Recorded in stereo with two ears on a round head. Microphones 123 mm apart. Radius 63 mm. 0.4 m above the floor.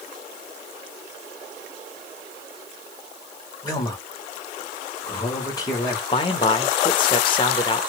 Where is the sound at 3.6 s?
25° left (ahead or behind), 1.9 m.